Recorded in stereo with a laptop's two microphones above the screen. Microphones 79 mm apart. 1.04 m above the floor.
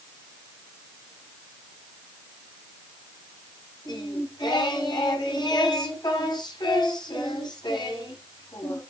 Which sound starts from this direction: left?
Singing, at 3.9 s.